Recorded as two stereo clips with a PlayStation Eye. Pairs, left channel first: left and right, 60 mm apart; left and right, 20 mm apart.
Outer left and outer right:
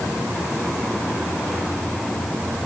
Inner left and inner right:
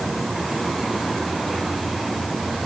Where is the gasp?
No gasp in this recording.